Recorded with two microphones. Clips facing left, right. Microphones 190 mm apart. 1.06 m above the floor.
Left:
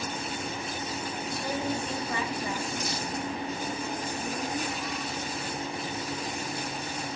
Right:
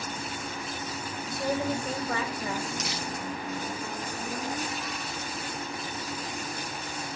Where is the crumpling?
80° right, 1.1 m.